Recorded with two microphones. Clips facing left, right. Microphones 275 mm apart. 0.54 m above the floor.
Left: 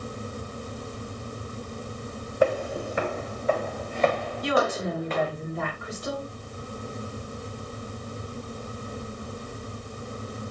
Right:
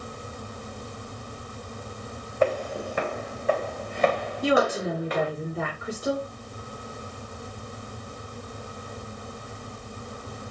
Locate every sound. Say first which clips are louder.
2.4 s footsteps: left 1 dB; 10° left (ahead or behind), 1.8 m; by 5.3 s 15° right (ahead or behind), 3.5 m
4.4 s a woman speaking: right 3 dB; 30° right (ahead or behind), 6.5 m